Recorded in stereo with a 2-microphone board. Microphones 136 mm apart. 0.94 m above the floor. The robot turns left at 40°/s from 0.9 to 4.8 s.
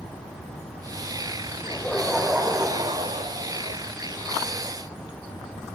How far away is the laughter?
About 3.5 m.